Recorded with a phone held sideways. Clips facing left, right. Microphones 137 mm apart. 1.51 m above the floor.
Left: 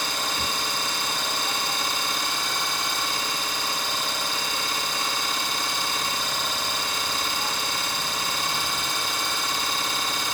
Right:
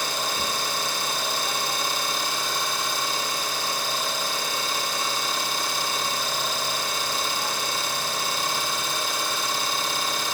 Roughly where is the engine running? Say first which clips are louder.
Right 1 dB; centre.